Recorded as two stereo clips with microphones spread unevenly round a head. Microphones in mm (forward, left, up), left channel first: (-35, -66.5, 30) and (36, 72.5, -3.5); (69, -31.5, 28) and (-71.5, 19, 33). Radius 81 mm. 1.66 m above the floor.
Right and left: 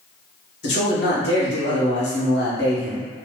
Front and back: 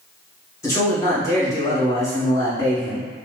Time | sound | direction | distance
0.6 | a man speaking | 90° right | 1.5 m